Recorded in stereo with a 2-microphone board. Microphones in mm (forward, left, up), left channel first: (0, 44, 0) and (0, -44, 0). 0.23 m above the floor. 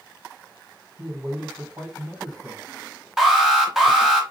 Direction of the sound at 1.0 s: 35° right (ahead or behind).